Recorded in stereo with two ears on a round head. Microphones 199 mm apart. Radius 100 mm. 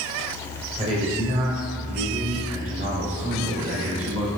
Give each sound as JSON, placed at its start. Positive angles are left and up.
{"t": 0.8, "sound": "a man speaking", "side_deg": -30, "distance_m": 4.0}